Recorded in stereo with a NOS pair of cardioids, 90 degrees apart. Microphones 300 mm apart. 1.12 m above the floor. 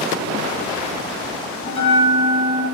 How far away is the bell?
About 1.3 m.